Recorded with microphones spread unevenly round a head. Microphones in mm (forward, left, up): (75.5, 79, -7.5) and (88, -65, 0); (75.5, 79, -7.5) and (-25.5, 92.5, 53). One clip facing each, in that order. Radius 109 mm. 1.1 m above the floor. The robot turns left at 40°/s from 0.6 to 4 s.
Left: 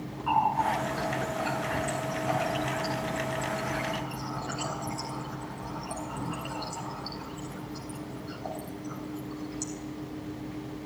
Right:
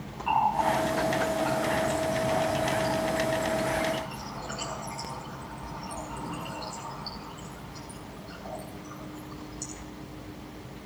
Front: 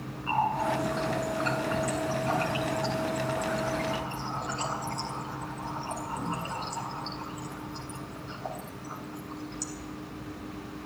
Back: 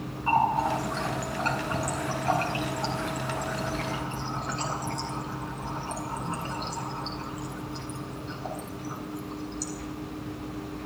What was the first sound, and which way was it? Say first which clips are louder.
A running tap: right 1 dB, back 3 dB; 155° right.